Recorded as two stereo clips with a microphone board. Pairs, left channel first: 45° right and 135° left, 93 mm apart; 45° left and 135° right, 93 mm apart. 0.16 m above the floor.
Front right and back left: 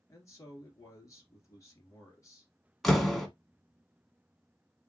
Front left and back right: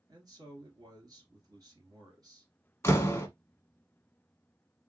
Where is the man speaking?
95° right, 2.5 m.